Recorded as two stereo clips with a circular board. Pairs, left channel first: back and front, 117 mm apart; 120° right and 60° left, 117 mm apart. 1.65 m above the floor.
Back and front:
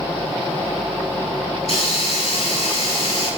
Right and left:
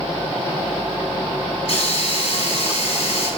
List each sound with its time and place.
1.6 s a hiss: 155° right, 4.5 m